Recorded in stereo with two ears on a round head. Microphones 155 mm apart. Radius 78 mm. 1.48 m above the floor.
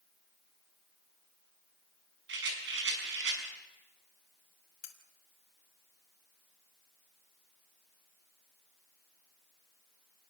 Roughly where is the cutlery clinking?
Left.